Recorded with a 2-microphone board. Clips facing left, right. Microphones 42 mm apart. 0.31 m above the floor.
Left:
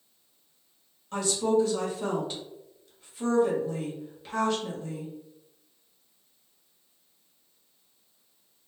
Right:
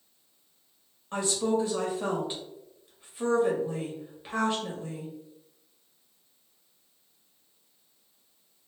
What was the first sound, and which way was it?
A woman speaking, 25° right (ahead or behind).